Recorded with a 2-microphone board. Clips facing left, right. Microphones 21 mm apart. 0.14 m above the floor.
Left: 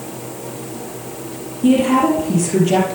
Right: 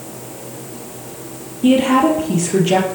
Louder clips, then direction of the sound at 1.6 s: Right 1 dB; 25° right (ahead or behind).